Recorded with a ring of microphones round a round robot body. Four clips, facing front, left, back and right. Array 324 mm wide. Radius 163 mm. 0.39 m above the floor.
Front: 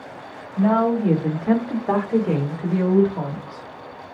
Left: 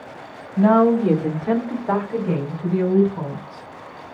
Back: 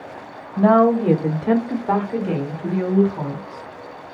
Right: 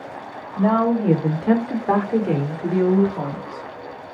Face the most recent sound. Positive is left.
turn(degrees=-40)